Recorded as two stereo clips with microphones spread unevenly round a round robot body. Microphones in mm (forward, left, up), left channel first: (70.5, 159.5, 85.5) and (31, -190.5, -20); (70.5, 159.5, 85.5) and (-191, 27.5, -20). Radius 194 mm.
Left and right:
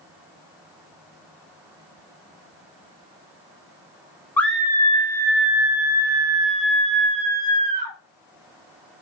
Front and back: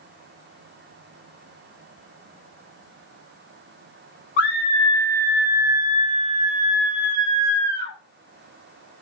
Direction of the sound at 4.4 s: 25° right.